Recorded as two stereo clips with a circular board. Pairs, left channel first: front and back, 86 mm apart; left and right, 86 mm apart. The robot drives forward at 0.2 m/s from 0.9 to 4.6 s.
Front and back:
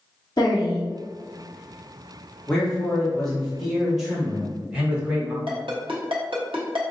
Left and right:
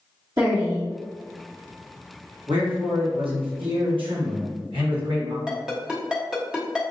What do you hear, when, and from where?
0.4 s a woman speaking: 40° right, 1.1 m
2.5 s a man speaking: 80° right, 1.2 m; by 5.4 s 100° right, 1.2 m
5.5 s a ringtone: 170° right, 1.0 m